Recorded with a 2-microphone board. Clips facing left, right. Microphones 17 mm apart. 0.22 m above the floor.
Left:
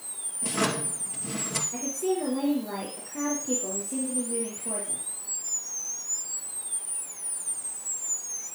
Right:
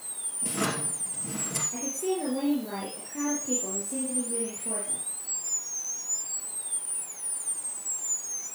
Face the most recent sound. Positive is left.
turn(degrees=-5)  # may be behind; listen again after turning